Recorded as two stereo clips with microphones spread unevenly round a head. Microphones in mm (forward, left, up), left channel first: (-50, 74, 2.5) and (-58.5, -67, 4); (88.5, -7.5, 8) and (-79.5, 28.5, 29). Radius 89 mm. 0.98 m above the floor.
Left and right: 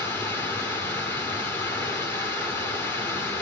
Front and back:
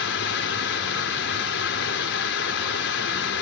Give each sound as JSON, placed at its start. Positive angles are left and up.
{"t": 0.0, "sound": "running water", "azimuth_deg": 10, "distance_m": 2.0}